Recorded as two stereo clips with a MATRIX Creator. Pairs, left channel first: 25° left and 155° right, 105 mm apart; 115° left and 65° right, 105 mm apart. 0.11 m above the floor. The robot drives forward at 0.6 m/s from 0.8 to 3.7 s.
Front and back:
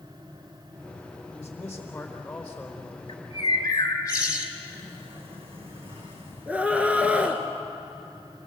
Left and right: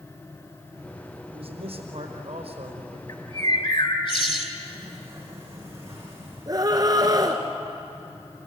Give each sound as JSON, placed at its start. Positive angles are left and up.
{"t": 1.3, "sound": "a man speaking", "azimuth_deg": -50, "distance_m": 4.5}
{"t": 3.1, "sound": "a bird", "azimuth_deg": 70, "distance_m": 2.5}
{"t": 4.6, "sound": "a sliding door", "azimuth_deg": -130, "distance_m": 8.0}
{"t": 6.5, "sound": "a scream", "azimuth_deg": -90, "distance_m": 1.3}